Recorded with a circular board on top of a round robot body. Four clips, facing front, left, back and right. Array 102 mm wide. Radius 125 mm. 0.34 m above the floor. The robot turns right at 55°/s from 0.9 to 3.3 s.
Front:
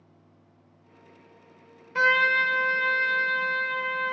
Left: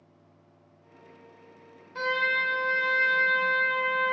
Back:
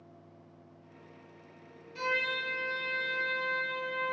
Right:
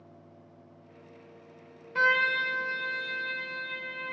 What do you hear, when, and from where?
1.9 s a trumpet: 20° right, 0.8 m; by 4.1 s 55° left, 0.8 m